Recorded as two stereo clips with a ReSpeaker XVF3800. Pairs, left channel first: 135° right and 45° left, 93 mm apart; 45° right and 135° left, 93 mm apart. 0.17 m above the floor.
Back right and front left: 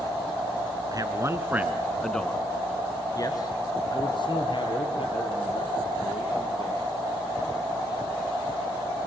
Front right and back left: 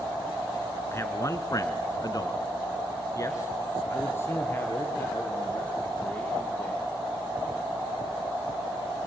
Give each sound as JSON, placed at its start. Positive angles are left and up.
{"t": 0.9, "sound": "a man speaking", "azimuth_deg": 10, "distance_m": 2.0}